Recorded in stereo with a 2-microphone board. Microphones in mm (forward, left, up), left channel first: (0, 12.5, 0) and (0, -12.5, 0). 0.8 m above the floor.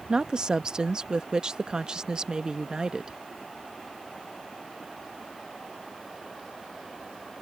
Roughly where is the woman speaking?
Right.